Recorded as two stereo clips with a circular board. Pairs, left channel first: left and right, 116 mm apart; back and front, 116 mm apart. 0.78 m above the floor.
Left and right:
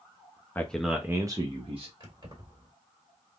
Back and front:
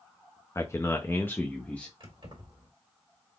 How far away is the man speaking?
About 0.5 m.